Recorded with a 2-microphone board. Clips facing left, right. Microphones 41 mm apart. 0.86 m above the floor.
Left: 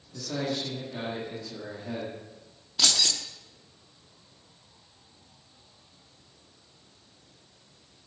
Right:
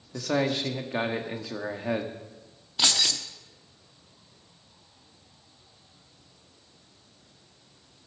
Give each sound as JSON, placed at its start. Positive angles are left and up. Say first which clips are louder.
{"t": 0.1, "sound": "a man speaking", "louder": "right 5 dB", "side_deg": -70, "distance_m": 1.3}
{"t": 2.8, "sound": "keys jangling", "louder": "right 1 dB", "side_deg": -20, "distance_m": 1.0}